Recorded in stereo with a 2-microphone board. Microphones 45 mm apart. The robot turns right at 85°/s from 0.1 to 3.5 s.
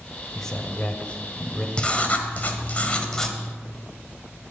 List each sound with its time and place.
0.3 s a man speaking: 10° left (ahead or behind), 1.1 m; by 1.7 s 15° left (ahead or behind), 1.1 m
1.8 s writing: 35° left, 1.3 m; by 3.4 s 170° left, 1.3 m